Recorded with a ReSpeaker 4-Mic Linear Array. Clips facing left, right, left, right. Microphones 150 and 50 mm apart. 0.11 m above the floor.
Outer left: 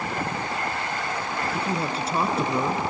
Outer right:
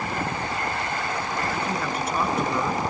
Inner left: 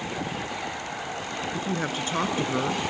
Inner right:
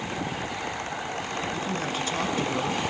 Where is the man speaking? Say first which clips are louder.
Even, inner left 1 dB; 30° left (ahead or behind), 1.9 m.